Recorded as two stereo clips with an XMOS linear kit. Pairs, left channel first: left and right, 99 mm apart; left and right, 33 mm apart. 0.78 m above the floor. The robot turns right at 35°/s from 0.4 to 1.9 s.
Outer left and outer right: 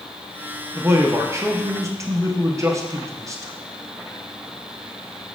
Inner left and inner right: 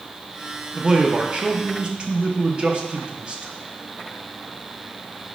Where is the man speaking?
125° right, 0.5 m; by 3.5 s 85° right, 0.5 m.